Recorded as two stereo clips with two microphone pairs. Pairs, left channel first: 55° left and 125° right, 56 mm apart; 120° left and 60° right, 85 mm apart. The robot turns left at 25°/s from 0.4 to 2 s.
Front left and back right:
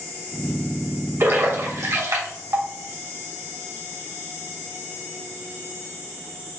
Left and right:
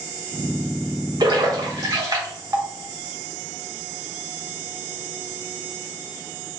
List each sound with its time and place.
1.2 s a splash: 90° right, 1.3 m; by 2.7 s 110° right, 1.3 m